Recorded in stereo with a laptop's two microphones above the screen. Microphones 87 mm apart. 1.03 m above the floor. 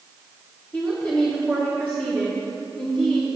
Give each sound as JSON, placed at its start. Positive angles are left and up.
{"t": 0.7, "sound": "a woman speaking", "side_deg": 20, "distance_m": 1.8}